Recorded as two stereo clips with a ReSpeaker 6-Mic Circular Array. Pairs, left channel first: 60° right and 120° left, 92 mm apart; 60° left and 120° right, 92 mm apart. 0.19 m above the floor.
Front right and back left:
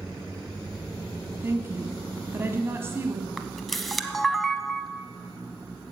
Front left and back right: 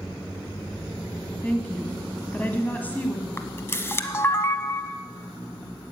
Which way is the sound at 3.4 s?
30° left.